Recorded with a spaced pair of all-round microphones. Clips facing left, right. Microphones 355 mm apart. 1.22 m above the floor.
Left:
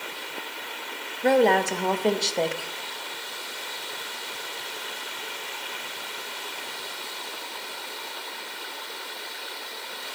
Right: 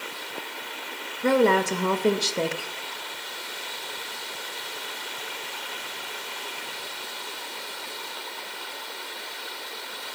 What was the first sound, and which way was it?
A woman speaking, 15° right (ahead or behind).